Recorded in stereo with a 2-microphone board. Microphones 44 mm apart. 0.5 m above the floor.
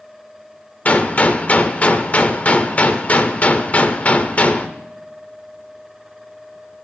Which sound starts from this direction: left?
A gunshot, at 0.8 s.